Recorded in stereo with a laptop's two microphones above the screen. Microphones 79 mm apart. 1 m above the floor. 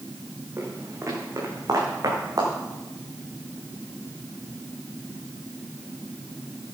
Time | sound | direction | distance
0.6 | footsteps | 35° right (ahead or behind) | 3.5 m